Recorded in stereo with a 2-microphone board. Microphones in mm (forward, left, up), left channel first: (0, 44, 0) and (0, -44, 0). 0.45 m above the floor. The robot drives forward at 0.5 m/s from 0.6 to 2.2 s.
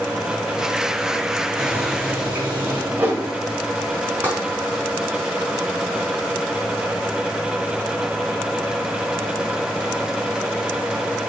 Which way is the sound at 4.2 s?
20° right (ahead or behind).